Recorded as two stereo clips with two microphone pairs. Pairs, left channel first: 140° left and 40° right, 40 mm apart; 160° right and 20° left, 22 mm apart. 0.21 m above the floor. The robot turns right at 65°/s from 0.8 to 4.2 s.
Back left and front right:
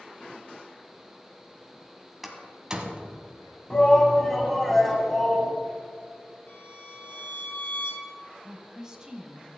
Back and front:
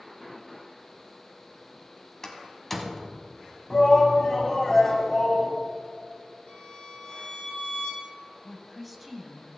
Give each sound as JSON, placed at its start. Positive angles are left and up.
{"t": 2.2, "sound": "a door slam", "azimuth_deg": -120, "distance_m": 1.1}
{"t": 3.7, "sound": "a shout", "azimuth_deg": -170, "distance_m": 1.2}
{"t": 6.5, "sound": "a violin", "azimuth_deg": 170, "distance_m": 2.0}
{"t": 8.4, "sound": "a woman speaking", "azimuth_deg": -70, "distance_m": 1.0}